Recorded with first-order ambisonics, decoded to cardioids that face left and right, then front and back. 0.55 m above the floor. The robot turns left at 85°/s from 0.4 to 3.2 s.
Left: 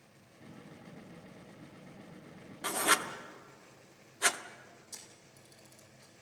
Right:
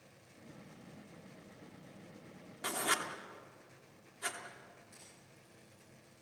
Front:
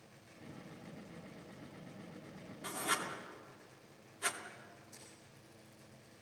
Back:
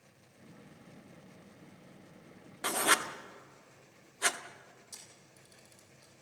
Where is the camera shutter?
140° left, 7.5 m.